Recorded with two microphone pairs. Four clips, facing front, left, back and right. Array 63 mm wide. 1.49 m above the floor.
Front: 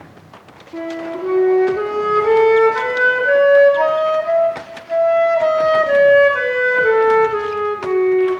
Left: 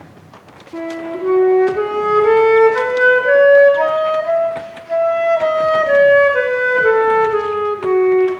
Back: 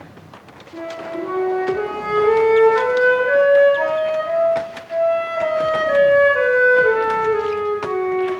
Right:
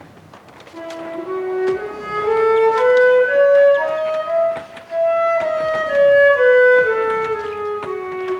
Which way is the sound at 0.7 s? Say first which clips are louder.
Left 4 dB, front 3 dB; 75° left.